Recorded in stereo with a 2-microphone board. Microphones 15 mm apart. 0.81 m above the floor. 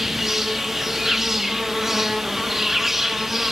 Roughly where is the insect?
Centre.